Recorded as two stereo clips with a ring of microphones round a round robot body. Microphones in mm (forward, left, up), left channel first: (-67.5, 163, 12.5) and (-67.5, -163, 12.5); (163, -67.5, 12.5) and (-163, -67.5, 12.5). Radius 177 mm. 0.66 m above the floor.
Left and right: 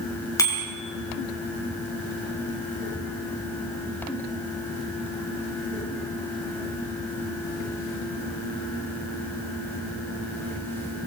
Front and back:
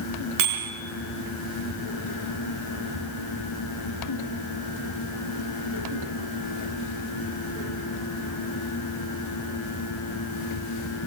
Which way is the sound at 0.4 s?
170° left.